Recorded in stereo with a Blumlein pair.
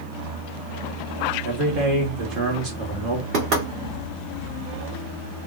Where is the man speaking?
30° right, 1.5 m.